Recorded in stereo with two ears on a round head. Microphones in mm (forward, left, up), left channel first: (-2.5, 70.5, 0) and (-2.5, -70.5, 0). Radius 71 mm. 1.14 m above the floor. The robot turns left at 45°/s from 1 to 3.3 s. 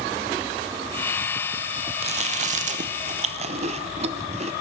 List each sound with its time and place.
2.0 s chewing: 40° right (ahead or behind), 0.7 m